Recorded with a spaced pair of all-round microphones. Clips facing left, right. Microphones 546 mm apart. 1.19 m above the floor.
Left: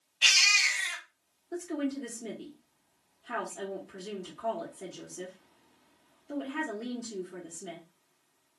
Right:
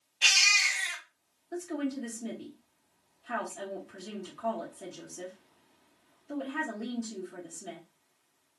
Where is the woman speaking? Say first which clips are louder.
Left 1 dB; 15° right (ahead or behind), 1.8 m.